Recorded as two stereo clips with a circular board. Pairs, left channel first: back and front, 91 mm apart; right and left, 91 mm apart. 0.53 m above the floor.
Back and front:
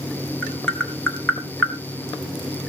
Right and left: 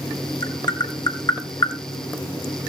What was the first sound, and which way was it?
Tapping, 105° right.